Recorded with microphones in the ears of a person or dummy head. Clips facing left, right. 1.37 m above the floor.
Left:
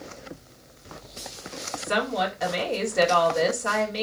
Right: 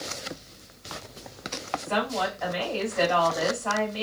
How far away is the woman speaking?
About 2 m.